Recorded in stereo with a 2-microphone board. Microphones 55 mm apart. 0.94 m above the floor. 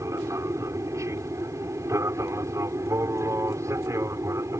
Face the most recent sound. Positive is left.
turn(degrees=-65)  # may be behind; listen again after turning